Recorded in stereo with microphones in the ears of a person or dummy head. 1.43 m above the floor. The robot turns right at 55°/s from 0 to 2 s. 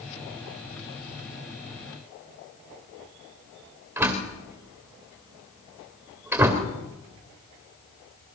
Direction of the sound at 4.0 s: 10° right (ahead or behind).